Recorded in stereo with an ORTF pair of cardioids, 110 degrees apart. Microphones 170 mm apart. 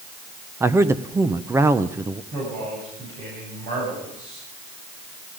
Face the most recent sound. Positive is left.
turn(degrees=-60)